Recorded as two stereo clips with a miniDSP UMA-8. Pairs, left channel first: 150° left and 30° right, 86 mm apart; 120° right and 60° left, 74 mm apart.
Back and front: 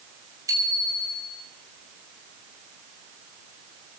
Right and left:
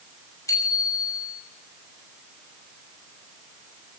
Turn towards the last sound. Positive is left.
turn(degrees=-75)